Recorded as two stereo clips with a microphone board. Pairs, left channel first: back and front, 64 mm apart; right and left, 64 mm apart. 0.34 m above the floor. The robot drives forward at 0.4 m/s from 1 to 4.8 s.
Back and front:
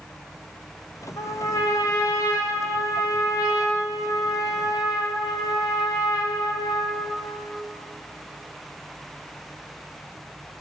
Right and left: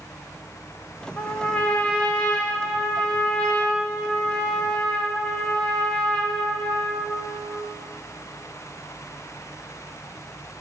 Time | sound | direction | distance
1.2 | a trumpet | 155° right | 4.5 m